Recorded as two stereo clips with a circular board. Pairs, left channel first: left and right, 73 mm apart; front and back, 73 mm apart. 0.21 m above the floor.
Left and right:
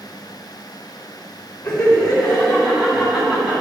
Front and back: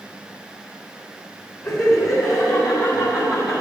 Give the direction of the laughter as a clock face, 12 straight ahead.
11 o'clock.